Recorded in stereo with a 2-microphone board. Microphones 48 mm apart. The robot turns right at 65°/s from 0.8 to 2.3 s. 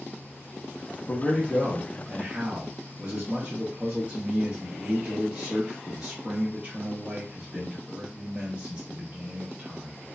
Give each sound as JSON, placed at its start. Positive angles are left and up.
{"t": 1.1, "sound": "a man speaking", "azimuth_deg": 155, "distance_m": 0.6}